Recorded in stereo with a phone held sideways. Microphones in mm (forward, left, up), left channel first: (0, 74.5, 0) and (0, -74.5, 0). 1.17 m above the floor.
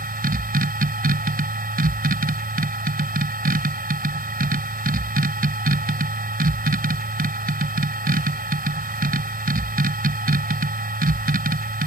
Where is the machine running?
80° right.